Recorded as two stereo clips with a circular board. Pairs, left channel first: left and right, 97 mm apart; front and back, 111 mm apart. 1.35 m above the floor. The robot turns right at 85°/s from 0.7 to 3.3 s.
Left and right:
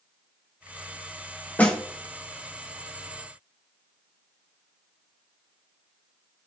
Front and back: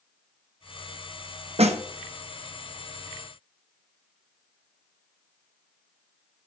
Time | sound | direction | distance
1.6 | a snare drum | 165° left | 0.8 m